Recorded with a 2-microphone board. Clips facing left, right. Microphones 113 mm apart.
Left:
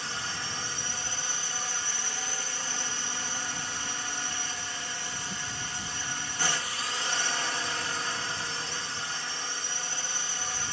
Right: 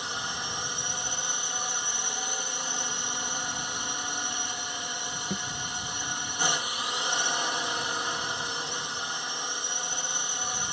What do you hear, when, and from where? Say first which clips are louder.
0.0 s a drone: right 2 dB; 20° right (ahead or behind)
5.3 s a thud: right 5 dB; 55° right (ahead or behind)